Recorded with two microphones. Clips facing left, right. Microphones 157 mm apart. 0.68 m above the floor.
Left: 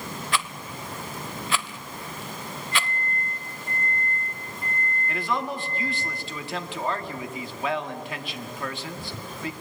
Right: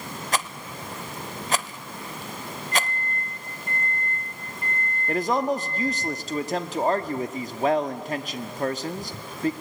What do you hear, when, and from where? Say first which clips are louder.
0.3 s a rattle: right 2 dB; 40° right (ahead or behind), 0.5 m
2.7 s a microwave: right 2 dB; 65° right (ahead or behind), 9.5 m
5.1 s a man speaking: right 7 dB; 40° right (ahead or behind), 1.2 m